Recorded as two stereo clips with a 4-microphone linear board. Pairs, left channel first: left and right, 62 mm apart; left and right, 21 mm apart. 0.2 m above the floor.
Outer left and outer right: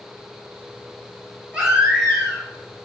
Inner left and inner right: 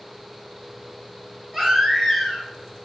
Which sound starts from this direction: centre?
A baby crying, at 1.5 s.